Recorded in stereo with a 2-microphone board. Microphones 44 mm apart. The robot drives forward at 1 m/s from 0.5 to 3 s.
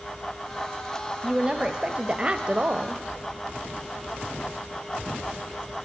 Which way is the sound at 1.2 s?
15° right (ahead or behind).